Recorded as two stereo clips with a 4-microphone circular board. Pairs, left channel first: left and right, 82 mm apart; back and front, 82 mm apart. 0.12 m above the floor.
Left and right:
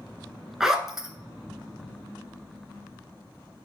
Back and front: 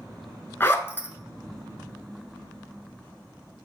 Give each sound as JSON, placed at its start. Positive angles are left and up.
{"t": 0.6, "sound": "a zipper", "azimuth_deg": -170, "distance_m": 0.5}